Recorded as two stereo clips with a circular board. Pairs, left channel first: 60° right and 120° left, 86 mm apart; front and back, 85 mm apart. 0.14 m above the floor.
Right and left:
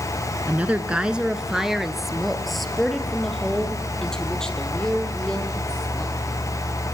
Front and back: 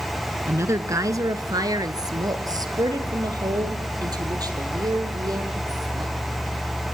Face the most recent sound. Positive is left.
turn(degrees=-140)